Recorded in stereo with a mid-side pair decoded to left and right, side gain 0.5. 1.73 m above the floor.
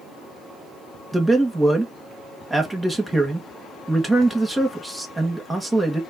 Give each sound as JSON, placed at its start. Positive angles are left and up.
{"t": 1.1, "sound": "a man speaking", "azimuth_deg": -15, "distance_m": 1.8}